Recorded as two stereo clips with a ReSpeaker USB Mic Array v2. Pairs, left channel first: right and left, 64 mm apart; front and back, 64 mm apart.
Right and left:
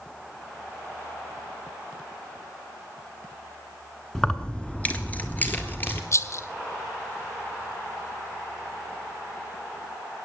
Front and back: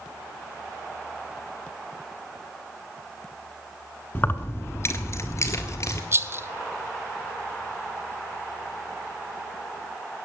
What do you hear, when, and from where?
4.2 s keys jangling: 10° right, 0.9 m; by 6.0 s 35° right, 1.9 m
6.1 s a rattle: 130° right, 0.7 m